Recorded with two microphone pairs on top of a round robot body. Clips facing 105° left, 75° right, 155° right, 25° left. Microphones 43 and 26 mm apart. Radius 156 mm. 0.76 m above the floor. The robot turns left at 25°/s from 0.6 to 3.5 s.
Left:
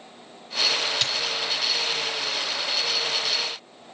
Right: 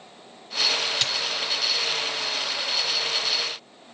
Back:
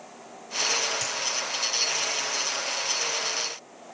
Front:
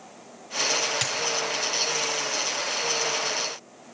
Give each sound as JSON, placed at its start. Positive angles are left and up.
{"t": 1.0, "sound": "a dropped coin", "azimuth_deg": 15, "distance_m": 1.2}